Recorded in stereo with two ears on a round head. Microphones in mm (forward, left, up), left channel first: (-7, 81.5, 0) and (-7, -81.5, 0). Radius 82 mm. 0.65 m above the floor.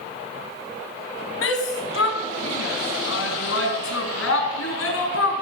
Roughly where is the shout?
Left.